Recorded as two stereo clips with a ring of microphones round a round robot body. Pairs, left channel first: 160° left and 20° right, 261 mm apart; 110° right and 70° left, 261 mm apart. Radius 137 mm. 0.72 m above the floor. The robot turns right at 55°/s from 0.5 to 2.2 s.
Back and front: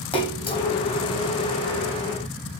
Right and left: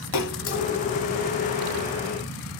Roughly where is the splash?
Behind right.